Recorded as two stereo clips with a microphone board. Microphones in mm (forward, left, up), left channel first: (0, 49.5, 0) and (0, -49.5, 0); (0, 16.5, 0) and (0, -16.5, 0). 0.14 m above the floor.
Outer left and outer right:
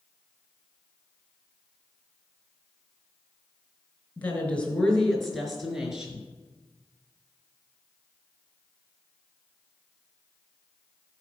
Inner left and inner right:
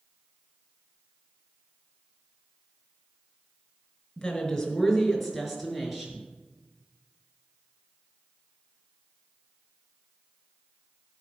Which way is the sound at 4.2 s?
15° left (ahead or behind).